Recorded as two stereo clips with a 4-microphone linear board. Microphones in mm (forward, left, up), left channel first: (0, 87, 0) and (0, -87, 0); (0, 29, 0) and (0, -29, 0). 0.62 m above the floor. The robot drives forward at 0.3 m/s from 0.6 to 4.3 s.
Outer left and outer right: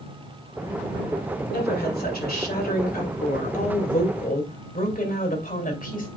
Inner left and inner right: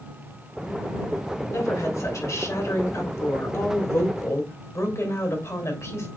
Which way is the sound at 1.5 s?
65° left (ahead or behind).